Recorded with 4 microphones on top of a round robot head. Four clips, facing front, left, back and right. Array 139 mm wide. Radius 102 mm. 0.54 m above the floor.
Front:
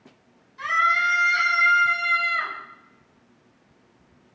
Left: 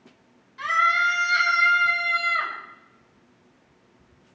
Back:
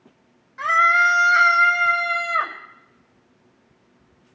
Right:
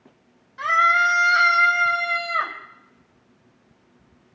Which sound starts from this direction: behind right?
A scream, at 0.6 s.